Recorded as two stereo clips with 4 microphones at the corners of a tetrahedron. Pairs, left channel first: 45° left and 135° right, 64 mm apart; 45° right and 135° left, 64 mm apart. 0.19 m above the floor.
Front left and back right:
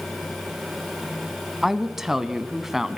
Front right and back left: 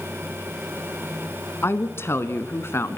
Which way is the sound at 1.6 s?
55° right.